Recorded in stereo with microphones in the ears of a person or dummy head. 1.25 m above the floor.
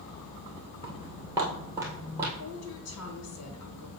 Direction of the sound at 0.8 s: 20° right (ahead or behind).